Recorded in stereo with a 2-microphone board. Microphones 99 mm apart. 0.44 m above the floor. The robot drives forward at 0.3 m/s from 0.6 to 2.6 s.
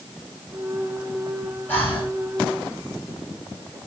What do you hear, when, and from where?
1.7 s breathing: 20° left (ahead or behind), 3.5 m